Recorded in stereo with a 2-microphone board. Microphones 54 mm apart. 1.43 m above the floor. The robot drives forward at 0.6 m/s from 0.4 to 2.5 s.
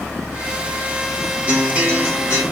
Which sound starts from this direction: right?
A guitar, at 1.5 s.